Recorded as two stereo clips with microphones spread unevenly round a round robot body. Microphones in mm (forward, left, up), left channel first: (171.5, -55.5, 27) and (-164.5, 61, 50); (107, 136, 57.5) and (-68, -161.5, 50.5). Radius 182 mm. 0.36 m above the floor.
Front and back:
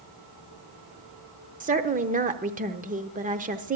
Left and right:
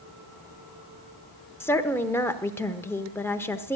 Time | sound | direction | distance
1.6 | a woman speaking | 135° left | 0.8 m